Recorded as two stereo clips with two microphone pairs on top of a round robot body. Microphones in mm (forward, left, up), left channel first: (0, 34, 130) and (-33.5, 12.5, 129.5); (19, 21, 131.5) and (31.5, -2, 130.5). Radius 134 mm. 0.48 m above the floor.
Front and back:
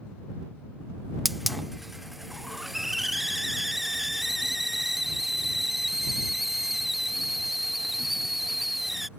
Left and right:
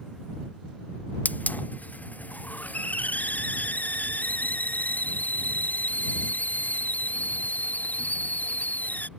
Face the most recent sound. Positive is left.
turn(degrees=125)